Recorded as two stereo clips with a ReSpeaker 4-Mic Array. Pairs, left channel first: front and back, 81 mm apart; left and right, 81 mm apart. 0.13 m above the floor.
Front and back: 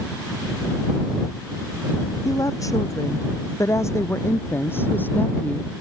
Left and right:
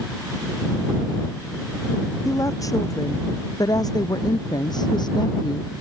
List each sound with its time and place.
2.2 s a woman speaking: 45° left; by 5.7 s 75° left